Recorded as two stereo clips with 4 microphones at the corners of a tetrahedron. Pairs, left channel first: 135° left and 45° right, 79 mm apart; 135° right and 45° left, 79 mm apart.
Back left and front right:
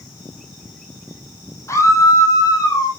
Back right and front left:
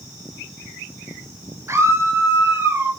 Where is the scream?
90° left, 2.5 m; by 2.9 s 100° left, 3 m.